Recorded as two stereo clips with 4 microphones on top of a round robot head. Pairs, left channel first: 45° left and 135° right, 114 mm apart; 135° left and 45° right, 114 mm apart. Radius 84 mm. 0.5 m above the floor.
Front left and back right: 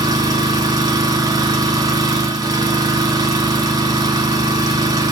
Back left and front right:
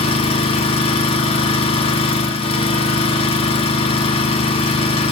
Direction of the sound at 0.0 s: 165° left.